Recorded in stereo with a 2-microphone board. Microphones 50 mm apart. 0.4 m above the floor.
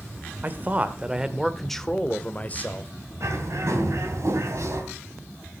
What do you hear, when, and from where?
0.4 s a man speaking: 35° right (ahead or behind), 1.1 m; by 2.9 s 40° left (ahead or behind), 1.3 m
3.2 s a bird: 65° right (ahead or behind), 2.5 m